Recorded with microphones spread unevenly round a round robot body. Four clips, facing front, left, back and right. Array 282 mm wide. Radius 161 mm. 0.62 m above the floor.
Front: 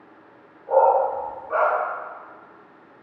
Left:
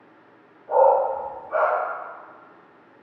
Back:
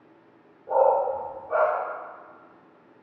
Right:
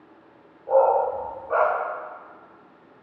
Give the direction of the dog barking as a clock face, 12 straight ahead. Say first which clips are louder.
Left 1 dB, front 3 dB; 4 o'clock.